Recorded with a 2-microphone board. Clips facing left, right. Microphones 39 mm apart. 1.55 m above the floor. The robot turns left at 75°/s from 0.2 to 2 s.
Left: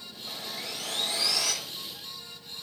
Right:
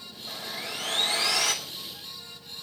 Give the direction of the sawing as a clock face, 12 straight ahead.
12 o'clock.